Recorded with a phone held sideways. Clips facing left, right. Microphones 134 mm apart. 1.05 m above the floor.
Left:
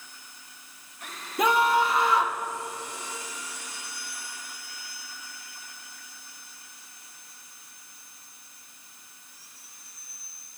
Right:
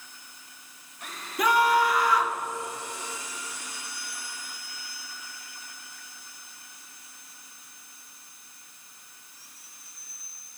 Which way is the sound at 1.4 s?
25° left (ahead or behind).